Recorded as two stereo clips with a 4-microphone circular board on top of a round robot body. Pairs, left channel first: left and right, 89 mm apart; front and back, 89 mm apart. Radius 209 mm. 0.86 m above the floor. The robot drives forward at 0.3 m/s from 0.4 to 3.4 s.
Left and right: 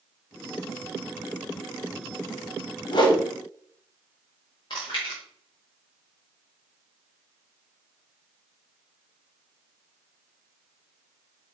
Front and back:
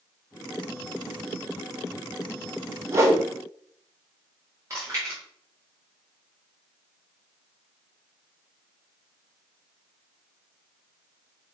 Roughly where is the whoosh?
Behind left.